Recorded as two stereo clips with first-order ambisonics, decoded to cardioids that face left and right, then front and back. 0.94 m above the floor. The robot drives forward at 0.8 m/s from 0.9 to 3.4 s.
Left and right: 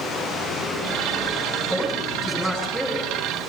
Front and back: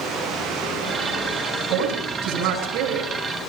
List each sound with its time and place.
1.7 s a woman speaking: 175° right, 8 m